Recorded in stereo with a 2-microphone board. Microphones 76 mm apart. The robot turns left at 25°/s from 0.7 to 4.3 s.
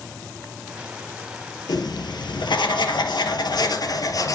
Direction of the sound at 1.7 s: 115° left.